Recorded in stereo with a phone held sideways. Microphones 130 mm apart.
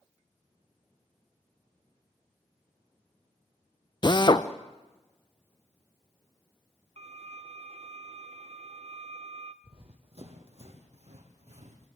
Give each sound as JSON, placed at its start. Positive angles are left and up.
{"t": 4.0, "sound": "a drill", "side_deg": 40, "distance_m": 0.8}
{"t": 7.0, "sound": "a violin", "side_deg": -55, "distance_m": 1.0}
{"t": 9.6, "sound": "running footsteps", "side_deg": -50, "distance_m": 2.5}